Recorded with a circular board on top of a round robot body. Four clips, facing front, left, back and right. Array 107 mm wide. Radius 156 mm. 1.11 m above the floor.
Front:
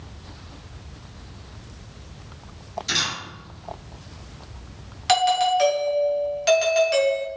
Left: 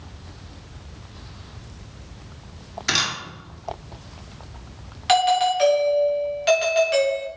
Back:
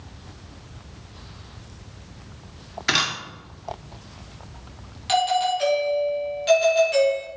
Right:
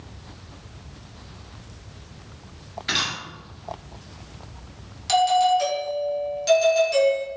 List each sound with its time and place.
2.9 s a camera shutter: 165° left, 1.9 m
5.1 s a doorbell: 45° left, 2.5 m